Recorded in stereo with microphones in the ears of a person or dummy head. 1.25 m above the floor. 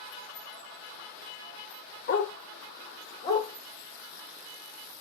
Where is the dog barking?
45° left (ahead or behind), 0.9 m; by 5.0 s 15° left (ahead or behind), 2.5 m.